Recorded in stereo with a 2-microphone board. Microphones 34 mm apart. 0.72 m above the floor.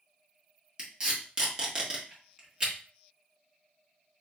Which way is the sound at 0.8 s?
25° right (ahead or behind).